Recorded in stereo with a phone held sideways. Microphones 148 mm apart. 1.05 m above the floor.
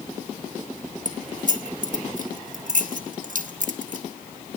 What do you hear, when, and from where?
1.1 s keys jangling: 60° right (ahead or behind), 1.0 m